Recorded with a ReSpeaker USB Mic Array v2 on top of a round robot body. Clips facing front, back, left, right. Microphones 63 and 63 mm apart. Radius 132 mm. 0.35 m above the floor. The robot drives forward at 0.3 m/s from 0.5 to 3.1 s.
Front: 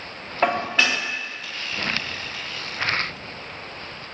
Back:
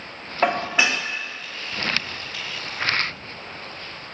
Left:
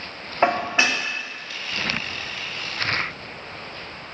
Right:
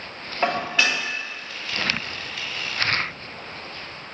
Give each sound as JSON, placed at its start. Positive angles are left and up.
{"t": 0.4, "sound": "dishes clattering", "azimuth_deg": 100, "distance_m": 0.6}